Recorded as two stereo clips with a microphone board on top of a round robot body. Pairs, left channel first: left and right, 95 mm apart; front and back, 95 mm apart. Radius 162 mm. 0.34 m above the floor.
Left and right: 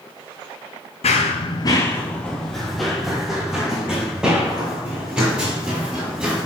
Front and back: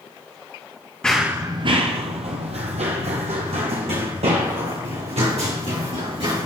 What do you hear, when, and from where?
1.0 s running footsteps: 80° left, 0.5 m; by 6.5 s 170° right, 4 m